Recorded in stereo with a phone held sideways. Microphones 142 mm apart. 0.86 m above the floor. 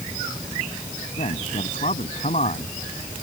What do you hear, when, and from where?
1.2 s a man speaking: 55° left (ahead or behind)